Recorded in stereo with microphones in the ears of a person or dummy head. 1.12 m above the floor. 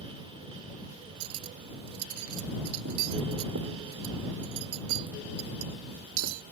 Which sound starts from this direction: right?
Cutlery clinking, at 1.2 s.